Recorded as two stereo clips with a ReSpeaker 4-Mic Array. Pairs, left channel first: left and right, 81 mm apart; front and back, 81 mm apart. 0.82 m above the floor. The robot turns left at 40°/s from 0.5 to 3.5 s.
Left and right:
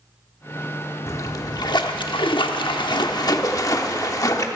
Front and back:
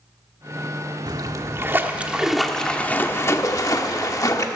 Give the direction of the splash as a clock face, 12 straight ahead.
7 o'clock.